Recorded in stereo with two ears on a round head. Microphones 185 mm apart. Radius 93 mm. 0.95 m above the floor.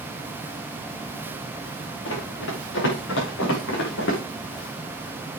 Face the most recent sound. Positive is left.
turn(degrees=60)  # may be behind; listen again after turning